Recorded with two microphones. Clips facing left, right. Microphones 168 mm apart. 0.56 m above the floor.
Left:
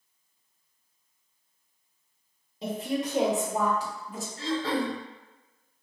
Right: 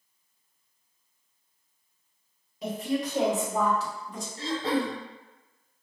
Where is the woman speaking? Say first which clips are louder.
Right 1 dB; 30° left (ahead or behind), 1.9 m; by 4.3 s centre (ahead or behind), 0.9 m.